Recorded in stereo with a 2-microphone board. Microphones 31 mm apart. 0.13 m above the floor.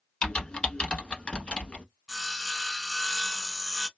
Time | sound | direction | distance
0.2 | typing on a keyboard | 35° left (ahead or behind) | 0.9 m
2.1 | sawing | centre (ahead or behind) | 0.6 m